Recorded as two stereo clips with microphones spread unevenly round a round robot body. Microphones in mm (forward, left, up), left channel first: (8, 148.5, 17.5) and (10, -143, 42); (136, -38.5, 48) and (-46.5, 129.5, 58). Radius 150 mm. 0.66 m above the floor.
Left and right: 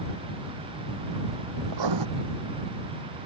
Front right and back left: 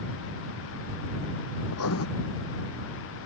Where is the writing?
85° right.